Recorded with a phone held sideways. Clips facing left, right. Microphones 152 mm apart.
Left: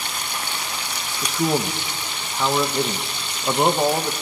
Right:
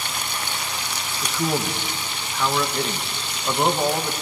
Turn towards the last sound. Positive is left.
turn(degrees=20)  # may be behind; listen again after turning